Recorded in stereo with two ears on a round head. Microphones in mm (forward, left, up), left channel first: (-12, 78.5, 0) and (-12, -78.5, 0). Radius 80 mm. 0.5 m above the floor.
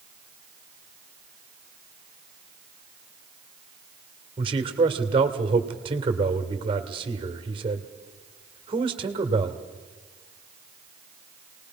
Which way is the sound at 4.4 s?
30° right (ahead or behind).